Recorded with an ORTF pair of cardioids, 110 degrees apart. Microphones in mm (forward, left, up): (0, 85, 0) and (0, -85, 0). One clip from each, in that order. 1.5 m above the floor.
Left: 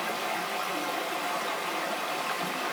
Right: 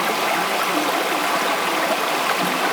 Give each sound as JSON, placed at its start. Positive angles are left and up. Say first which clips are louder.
{"t": 0.0, "sound": "running water", "louder": "right 11 dB", "azimuth_deg": -60, "distance_m": 1.0}